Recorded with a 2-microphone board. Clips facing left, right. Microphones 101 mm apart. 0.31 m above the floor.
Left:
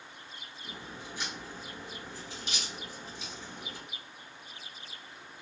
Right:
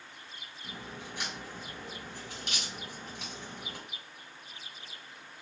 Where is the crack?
60° right (ahead or behind), 2.0 m.